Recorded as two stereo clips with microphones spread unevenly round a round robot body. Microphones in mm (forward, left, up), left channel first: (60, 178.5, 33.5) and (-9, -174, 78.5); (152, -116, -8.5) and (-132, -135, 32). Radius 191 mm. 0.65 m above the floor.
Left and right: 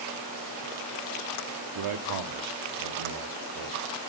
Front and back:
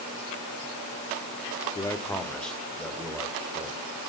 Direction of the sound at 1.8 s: 70° right.